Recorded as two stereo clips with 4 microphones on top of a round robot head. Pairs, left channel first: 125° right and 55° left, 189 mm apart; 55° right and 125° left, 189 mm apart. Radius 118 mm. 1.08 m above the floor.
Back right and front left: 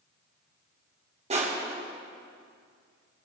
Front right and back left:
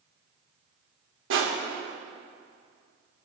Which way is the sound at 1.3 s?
110° left.